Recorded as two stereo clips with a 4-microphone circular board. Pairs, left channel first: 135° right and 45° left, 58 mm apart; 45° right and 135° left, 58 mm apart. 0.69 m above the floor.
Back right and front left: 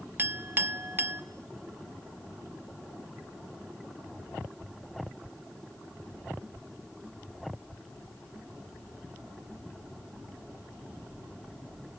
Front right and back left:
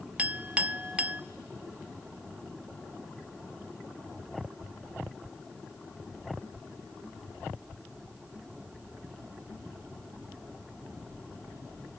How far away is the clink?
About 0.6 m.